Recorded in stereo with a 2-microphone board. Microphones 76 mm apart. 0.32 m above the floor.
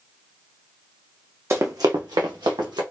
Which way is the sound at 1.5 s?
40° right (ahead or behind).